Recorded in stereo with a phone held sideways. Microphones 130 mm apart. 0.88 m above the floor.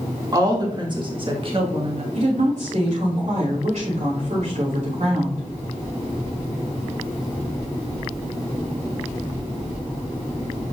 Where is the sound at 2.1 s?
75° right (ahead or behind), 2.5 m.